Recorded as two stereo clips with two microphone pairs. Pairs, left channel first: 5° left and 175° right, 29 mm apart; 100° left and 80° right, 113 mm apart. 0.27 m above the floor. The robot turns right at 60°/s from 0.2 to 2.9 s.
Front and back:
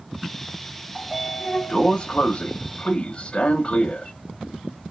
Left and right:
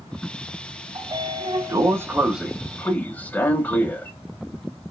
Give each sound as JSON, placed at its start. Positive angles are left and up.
{"t": 0.9, "sound": "a sliding door", "azimuth_deg": -85, "distance_m": 0.6}